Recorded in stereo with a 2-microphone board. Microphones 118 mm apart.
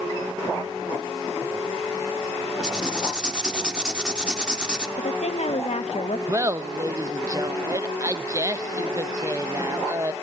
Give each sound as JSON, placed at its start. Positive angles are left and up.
{"t": 2.6, "sound": "writing", "side_deg": -5, "distance_m": 0.9}
{"t": 5.0, "sound": "a woman speaking", "side_deg": 60, "distance_m": 1.0}
{"t": 6.3, "sound": "laughter", "side_deg": -30, "distance_m": 0.7}